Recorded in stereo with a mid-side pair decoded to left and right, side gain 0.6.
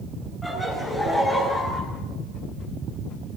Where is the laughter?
10° left, 9.5 m; by 1.8 s 20° left, 9.5 m.